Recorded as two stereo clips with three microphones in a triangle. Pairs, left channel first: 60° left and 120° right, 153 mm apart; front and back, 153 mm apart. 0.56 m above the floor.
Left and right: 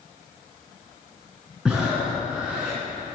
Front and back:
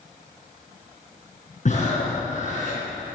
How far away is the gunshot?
I don't hear a gunshot.